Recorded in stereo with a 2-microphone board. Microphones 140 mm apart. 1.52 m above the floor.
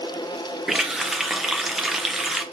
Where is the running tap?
Centre (ahead or behind), 0.5 m.